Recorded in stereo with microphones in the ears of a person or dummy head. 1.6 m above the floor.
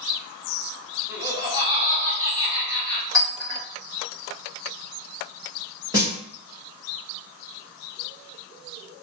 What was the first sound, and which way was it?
Laughter, 10° right (ahead or behind).